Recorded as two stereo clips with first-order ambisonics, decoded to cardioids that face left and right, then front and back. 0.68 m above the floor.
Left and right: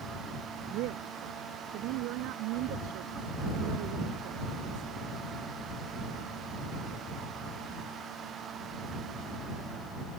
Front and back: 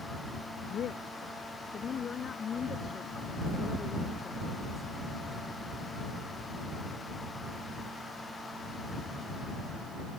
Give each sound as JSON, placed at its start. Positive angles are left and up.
{"t": 0.7, "sound": "a woman speaking", "azimuth_deg": -60}